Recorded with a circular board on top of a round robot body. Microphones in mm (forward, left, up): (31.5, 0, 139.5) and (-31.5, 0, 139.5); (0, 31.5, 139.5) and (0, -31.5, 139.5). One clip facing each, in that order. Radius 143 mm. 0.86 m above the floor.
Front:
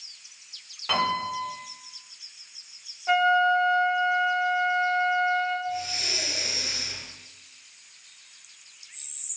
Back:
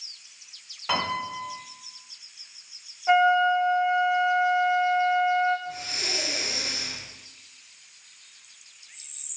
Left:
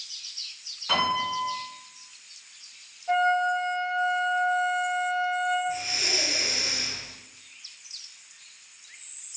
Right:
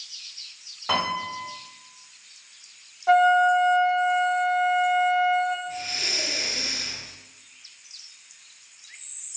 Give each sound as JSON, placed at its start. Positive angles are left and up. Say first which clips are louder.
{"t": 0.9, "sound": "a piano", "louder": "front 2 dB, left 1 dB", "azimuth_deg": -95, "distance_m": 1.6}
{"t": 3.1, "sound": "a flute", "louder": "back 1 dB, right 6 dB", "azimuth_deg": -100, "distance_m": 0.6}
{"t": 5.7, "sound": "breathing", "louder": "front 3 dB, left 2 dB", "azimuth_deg": 165, "distance_m": 0.8}